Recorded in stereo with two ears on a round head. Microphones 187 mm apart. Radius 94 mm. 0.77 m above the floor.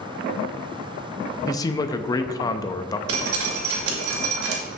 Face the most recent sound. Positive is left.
turn(degrees=-75)  # may be behind; listen again after turning